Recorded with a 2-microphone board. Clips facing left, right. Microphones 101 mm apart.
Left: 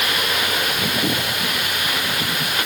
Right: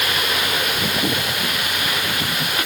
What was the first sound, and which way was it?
Only background noise.